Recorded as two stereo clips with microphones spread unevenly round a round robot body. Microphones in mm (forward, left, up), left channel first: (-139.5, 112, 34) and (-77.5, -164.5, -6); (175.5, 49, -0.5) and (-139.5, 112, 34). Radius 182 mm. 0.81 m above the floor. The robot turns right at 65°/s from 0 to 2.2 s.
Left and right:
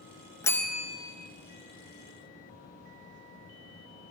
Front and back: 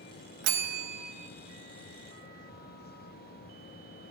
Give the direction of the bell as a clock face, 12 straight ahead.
6 o'clock.